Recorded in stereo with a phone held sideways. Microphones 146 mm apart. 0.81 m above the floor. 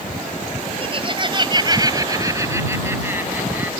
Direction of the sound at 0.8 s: 40° right (ahead or behind).